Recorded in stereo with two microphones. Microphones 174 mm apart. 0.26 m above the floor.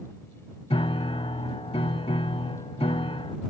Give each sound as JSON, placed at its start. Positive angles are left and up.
{"t": 0.7, "sound": "a piano", "side_deg": 35}